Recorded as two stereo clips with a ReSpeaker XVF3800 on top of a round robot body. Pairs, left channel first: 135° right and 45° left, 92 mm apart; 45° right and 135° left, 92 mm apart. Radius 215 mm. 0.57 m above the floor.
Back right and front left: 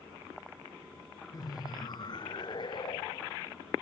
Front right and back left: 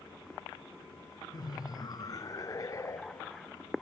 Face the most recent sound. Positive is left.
turn(degrees=-105)